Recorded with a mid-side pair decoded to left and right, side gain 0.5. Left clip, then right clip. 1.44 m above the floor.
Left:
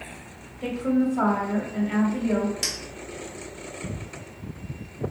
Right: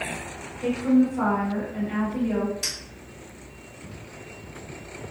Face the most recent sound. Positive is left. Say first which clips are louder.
# left 2 dB
turn(degrees=60)